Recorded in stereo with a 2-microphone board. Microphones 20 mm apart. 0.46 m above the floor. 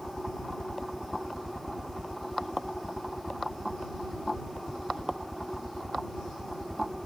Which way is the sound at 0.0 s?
5° right (ahead or behind).